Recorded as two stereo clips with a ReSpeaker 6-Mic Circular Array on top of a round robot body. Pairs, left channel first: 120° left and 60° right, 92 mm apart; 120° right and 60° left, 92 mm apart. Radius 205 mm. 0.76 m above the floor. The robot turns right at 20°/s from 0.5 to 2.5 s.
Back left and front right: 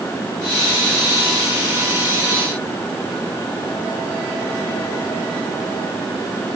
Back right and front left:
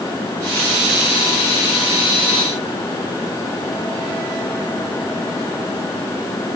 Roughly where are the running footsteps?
No running footsteps in this recording.